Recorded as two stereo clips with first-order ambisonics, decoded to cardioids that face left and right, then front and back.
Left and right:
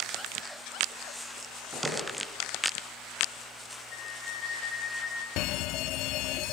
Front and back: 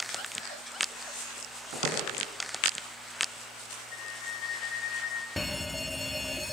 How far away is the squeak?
About 4.5 m.